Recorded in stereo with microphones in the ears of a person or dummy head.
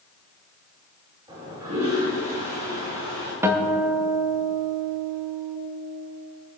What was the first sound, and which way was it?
A toilet flushing, 20° right (ahead or behind).